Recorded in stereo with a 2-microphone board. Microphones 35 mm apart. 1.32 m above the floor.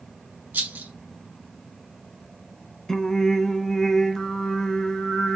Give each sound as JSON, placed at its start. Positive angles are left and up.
{"t": 0.5, "sound": "a rattle", "side_deg": -70, "distance_m": 1.2}
{"t": 2.9, "sound": "singing", "side_deg": 10, "distance_m": 0.6}